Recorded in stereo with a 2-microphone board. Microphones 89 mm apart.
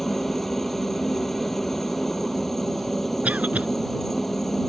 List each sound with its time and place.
0.0 s a helicopter: 5° left (ahead or behind)
3.2 s a cough: 15° right (ahead or behind)